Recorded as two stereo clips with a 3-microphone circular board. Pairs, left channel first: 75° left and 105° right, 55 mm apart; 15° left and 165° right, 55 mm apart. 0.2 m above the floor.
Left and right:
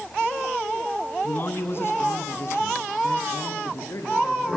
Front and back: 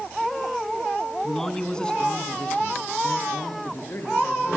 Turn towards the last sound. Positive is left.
turn(degrees=60)